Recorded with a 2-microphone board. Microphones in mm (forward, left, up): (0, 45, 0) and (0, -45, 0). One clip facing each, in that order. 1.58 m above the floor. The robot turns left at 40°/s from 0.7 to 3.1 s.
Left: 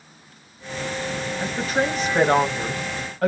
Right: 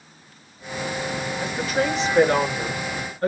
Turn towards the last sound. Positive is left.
turn(degrees=90)